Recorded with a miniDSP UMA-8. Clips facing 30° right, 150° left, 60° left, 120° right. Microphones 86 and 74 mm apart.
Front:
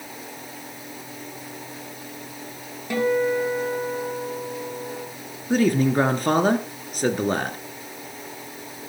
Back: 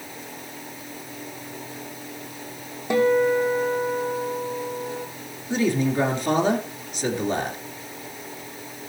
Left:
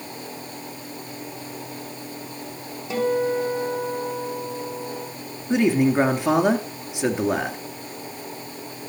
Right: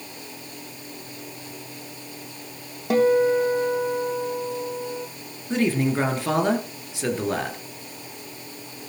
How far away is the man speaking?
About 2 m.